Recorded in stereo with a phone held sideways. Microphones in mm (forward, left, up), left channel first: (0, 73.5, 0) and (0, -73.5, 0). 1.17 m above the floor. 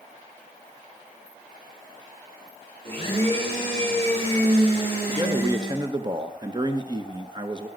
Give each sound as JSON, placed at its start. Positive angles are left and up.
{"t": 2.9, "sound": "a blender", "side_deg": -35, "distance_m": 6.0}
{"t": 5.1, "sound": "a man speaking", "side_deg": -30, "distance_m": 0.9}